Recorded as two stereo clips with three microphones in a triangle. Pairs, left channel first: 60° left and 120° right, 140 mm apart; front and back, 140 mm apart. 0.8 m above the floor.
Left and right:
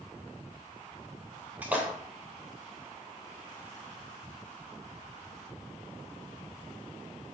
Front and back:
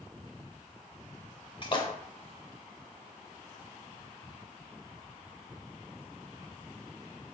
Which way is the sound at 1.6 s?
45° right.